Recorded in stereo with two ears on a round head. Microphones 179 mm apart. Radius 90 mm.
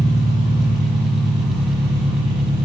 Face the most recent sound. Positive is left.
turn(degrees=-25)  # may be behind; listen again after turning